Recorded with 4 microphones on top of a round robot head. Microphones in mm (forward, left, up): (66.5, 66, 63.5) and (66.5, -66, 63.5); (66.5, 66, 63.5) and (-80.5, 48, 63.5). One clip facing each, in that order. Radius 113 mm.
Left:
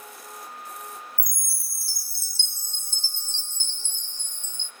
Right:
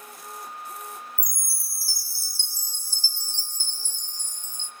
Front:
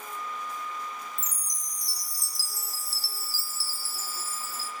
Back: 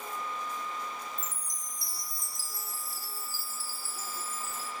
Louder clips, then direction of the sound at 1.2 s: Right 2 dB, even; 25° left.